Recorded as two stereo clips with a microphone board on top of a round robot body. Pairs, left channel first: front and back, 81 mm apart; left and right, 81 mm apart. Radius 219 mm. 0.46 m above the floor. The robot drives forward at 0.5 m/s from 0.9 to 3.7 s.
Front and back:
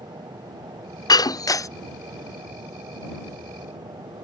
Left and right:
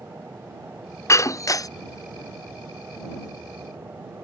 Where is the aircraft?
155° right.